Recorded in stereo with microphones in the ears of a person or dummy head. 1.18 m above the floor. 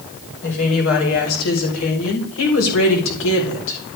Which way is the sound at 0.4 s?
75° left (ahead or behind).